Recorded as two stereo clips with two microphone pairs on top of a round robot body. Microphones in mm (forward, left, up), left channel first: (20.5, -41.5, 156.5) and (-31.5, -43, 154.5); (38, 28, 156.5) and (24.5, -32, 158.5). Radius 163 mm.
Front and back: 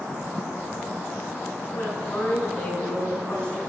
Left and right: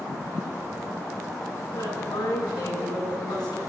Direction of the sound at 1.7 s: 65° left.